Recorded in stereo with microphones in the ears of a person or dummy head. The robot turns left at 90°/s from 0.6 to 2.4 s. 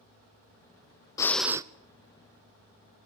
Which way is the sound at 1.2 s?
25° left.